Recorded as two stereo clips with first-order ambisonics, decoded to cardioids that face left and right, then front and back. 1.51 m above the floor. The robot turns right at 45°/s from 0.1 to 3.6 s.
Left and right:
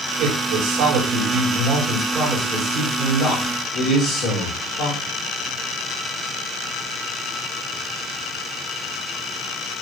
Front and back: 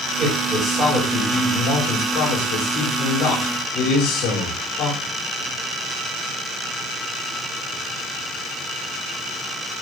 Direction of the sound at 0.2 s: 105° right.